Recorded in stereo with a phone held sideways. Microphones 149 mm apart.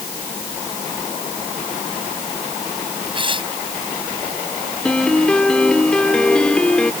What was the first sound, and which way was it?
Tearing paper, 35° right (ahead or behind).